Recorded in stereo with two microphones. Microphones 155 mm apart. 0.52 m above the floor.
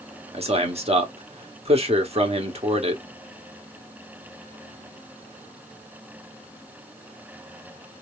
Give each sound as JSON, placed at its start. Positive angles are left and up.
{"t": 0.3, "sound": "a man speaking", "side_deg": -40, "distance_m": 1.3}